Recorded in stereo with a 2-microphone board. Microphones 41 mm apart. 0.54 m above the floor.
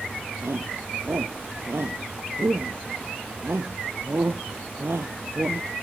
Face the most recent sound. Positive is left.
turn(degrees=-80)